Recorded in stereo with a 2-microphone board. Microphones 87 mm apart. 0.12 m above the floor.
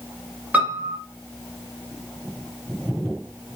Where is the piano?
20° right (ahead or behind), 1.3 m.